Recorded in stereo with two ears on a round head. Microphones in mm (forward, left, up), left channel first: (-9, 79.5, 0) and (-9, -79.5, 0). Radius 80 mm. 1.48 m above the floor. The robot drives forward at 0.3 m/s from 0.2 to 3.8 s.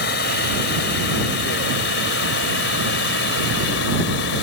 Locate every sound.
0.0 s running water: 60° left (ahead or behind); by 4.4 s 70° left (ahead or behind)